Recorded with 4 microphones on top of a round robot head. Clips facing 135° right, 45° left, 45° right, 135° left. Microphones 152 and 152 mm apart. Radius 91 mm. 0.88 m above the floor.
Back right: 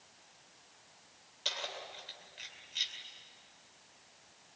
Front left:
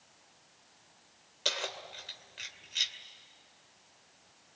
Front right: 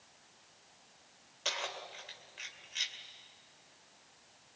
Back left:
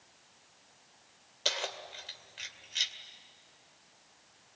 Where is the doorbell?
I don't hear a doorbell.